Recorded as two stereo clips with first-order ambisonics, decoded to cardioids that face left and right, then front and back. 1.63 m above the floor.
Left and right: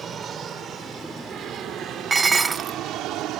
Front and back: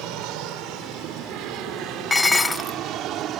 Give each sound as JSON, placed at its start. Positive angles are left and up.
{"t": 0.0, "sound": "an aircraft", "azimuth_deg": -155}
{"t": 2.1, "sound": "dishes clattering", "azimuth_deg": -60}